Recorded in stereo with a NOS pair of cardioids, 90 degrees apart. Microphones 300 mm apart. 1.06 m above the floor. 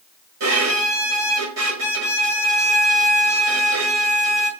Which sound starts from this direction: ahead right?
A violin, at 0.4 s.